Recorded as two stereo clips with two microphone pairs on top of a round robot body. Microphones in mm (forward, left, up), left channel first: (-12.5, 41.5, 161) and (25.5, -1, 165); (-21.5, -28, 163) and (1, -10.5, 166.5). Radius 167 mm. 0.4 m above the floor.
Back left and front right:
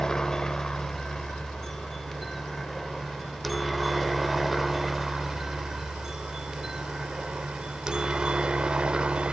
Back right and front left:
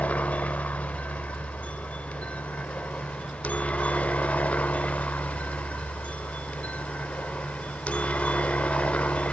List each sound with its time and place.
0.0 s a helicopter: 150° right; by 9.3 s 120° right